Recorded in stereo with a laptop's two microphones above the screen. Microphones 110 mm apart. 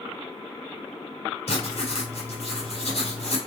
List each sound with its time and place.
1.5 s writing: 65° left (ahead or behind), 2.0 m